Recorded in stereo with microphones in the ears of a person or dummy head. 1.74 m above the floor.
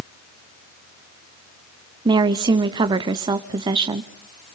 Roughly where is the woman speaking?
Right.